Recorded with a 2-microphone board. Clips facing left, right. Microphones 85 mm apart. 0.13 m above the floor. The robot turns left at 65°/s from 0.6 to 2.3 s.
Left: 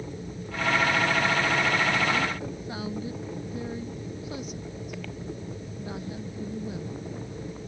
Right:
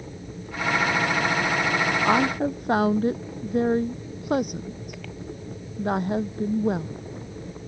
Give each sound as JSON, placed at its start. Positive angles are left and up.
{"t": 2.0, "sound": "a woman speaking", "side_deg": -45}